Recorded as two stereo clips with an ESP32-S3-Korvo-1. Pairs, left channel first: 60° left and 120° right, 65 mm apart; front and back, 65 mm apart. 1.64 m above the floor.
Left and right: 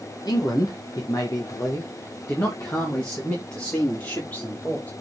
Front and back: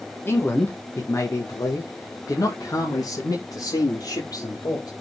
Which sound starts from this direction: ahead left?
A man speaking, at 0.2 s.